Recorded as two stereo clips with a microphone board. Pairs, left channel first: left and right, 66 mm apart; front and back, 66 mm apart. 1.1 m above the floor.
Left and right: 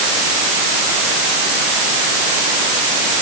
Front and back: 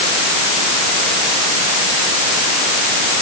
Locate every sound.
Only background noise.